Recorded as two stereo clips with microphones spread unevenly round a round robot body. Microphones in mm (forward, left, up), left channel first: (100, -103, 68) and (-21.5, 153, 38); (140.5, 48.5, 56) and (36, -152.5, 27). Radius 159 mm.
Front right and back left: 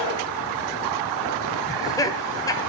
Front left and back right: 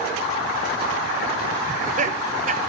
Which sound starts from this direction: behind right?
Laughter, at 1.7 s.